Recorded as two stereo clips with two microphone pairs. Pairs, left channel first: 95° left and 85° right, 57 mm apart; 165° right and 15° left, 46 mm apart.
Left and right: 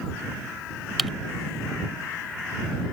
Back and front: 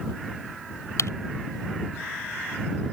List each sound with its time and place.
1.0 s typing on a keyboard: 175° right